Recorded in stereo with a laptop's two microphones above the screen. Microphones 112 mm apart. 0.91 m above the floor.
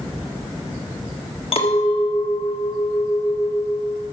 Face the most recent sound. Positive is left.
turn(degrees=60)  # may be behind; listen again after turning